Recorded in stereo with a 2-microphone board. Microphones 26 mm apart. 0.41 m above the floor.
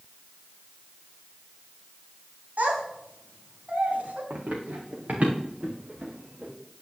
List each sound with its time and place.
2.6 s a child speaking: 70° right (ahead or behind), 2 m; by 4.2 s 60° right (ahead or behind), 3.5 m
4.3 s running footsteps: 75° right (ahead or behind), 2.5 m; by 6.5 s 40° right (ahead or behind), 3.5 m